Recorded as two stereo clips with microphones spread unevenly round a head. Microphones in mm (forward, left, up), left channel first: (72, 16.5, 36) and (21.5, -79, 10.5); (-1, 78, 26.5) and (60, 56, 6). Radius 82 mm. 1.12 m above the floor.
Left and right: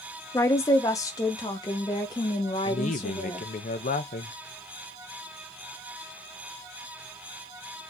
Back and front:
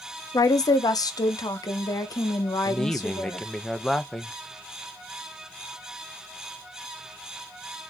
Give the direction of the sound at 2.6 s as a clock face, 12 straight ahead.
10 o'clock.